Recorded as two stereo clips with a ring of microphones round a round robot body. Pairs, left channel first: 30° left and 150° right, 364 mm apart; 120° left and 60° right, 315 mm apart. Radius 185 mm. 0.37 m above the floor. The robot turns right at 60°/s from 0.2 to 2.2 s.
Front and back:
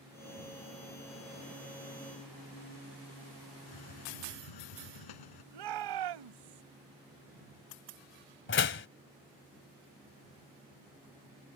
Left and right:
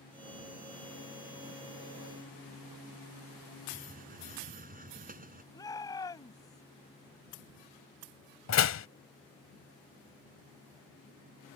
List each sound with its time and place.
3.7 s a hiss: 5° left
5.5 s a shout: 160° right
8.5 s a door slam: 85° left